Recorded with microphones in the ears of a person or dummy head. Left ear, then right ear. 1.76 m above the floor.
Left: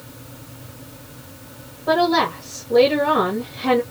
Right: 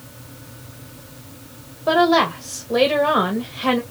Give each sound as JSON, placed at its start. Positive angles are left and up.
{"t": 1.9, "sound": "a woman speaking", "side_deg": -60, "distance_m": 1.6}